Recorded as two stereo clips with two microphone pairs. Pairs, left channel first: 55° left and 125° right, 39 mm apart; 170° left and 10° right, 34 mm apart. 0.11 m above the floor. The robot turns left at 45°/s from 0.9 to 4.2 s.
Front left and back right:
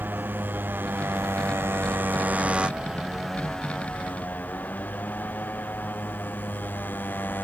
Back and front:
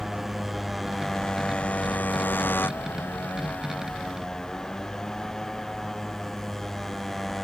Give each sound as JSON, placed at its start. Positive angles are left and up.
{"t": 0.0, "sound": "a motorcycle", "azimuth_deg": -95}